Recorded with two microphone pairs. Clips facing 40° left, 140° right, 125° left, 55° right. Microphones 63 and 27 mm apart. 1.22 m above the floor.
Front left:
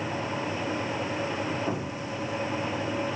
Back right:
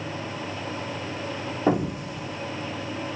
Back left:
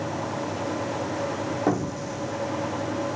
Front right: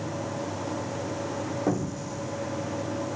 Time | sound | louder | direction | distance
1.7 | an explosion | back right 7 dB, back left 4 dB | 165° right | 0.8 m